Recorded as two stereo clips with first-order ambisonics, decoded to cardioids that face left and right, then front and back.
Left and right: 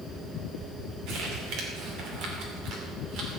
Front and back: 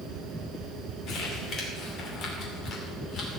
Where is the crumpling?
50° right, 2.5 m.